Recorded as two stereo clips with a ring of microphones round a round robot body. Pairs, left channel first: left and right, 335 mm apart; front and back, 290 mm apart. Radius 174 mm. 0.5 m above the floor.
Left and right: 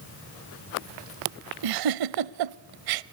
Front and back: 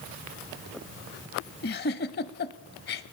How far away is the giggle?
About 0.6 m.